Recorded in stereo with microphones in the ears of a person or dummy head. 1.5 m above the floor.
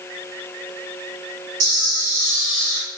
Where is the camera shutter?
40° right (ahead or behind), 1.7 m.